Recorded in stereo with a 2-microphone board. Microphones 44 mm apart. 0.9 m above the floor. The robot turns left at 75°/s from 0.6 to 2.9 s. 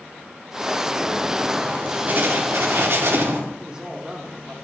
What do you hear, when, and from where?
1.6 s writing: 15° right, 2 m; by 3.4 s 110° right, 2 m
3.6 s a man speaking: 15° right (ahead or behind), 2.5 m